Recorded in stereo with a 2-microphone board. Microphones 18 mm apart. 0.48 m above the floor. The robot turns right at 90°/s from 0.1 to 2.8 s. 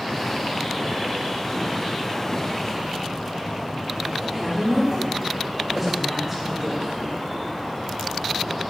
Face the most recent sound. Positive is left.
turn(degrees=-20)  # may be behind; listen again after turning